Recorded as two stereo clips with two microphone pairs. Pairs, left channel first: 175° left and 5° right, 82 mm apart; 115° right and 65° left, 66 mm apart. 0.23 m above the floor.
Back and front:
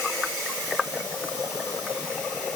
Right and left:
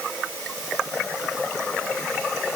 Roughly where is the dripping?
I don't hear dripping.